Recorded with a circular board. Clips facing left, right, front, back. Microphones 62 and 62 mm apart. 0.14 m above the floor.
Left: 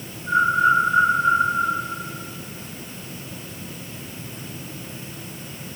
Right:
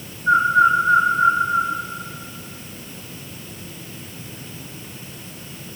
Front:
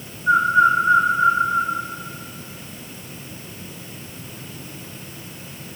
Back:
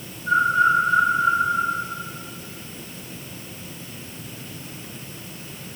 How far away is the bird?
About 3 m.